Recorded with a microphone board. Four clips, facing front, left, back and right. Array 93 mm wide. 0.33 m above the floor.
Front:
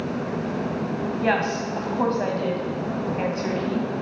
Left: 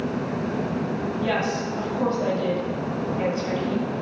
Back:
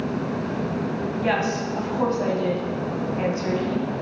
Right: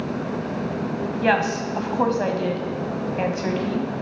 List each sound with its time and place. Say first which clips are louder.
1.2 s a woman speaking: right 6 dB, front 1 dB; 75° right, 1.7 m